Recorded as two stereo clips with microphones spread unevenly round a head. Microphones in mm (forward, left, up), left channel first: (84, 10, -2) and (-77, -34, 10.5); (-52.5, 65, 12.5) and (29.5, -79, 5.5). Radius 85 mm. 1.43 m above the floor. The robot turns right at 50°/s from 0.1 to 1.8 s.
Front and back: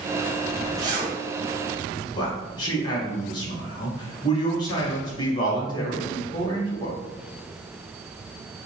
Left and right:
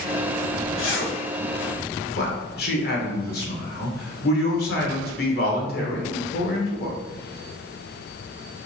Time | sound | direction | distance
0.8 | a zipper | 125° left | 1.3 m
2.1 | a man speaking | 80° left | 1.4 m